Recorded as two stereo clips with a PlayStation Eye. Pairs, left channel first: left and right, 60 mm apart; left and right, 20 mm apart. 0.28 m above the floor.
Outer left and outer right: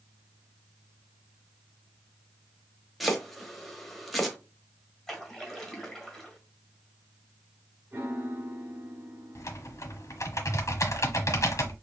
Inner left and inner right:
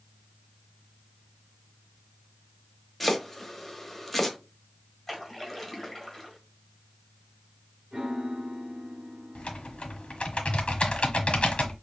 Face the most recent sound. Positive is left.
turn(degrees=60)  # may be behind; listen again after turning